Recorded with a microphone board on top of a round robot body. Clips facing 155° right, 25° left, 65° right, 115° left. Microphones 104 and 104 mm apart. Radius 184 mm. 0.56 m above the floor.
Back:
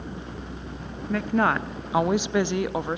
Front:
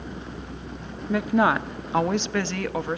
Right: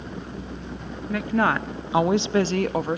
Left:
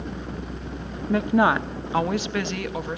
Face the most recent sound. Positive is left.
turn(degrees=-90)